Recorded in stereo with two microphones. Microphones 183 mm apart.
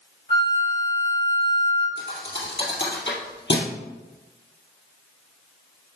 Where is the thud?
80° left, 2 m.